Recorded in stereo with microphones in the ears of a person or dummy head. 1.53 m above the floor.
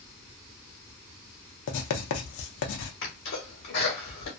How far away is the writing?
About 0.6 m.